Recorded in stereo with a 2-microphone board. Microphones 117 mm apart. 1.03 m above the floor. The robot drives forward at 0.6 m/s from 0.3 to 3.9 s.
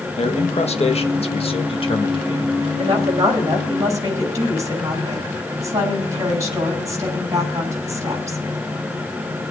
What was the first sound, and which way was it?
A man speaking, 60° left (ahead or behind).